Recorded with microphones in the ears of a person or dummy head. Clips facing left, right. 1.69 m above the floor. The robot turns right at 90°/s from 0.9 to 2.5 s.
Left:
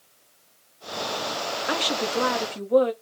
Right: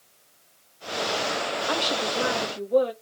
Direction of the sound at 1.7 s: 30° left.